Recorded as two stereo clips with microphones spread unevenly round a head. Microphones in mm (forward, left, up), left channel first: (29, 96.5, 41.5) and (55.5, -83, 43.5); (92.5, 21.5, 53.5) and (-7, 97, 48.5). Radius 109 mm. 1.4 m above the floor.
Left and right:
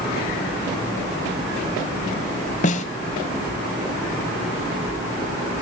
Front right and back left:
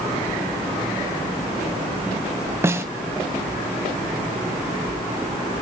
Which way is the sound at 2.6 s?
85° left.